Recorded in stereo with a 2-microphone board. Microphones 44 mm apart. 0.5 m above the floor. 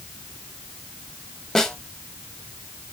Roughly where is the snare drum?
Centre.